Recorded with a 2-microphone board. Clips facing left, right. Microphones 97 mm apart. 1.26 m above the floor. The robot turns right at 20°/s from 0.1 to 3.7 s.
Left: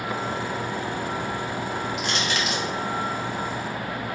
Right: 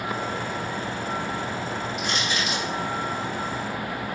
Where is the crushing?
85° left, 2.5 m; by 2.6 s 80° left, 2.5 m.